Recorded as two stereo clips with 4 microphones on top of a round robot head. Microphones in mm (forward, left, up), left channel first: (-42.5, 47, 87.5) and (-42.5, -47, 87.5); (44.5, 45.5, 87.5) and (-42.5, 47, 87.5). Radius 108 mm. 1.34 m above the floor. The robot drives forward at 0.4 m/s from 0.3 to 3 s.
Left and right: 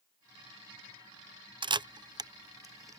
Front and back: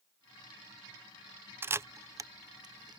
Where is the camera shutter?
120° right; by 3.0 s 145° right.